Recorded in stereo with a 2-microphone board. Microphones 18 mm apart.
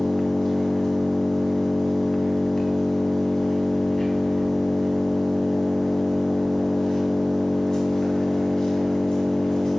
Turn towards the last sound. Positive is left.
turn(degrees=45)  # may be behind; listen again after turning